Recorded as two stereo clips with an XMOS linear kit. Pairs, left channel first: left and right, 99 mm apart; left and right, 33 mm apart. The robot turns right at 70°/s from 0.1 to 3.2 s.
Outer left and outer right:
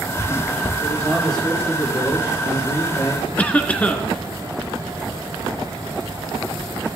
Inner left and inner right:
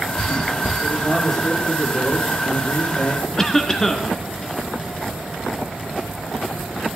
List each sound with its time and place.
0.8 s a man speaking: 30° right, 10 m; by 3.3 s 135° left, 10 m
3.4 s a cough: 15° left (ahead or behind), 1.8 m